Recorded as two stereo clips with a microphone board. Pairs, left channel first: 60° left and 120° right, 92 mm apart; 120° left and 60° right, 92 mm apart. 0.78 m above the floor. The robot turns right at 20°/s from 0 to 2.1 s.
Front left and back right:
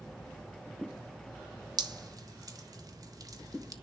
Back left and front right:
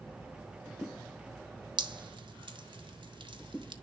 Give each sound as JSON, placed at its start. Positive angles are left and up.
{"t": 1.8, "sound": "dripping", "azimuth_deg": -85, "distance_m": 1.3}